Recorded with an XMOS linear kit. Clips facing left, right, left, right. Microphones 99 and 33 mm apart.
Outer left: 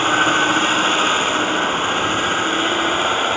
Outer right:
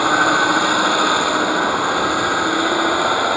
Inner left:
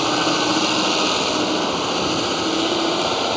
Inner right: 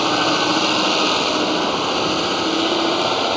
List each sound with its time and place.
0.0 s a vehicle: 10° right (ahead or behind)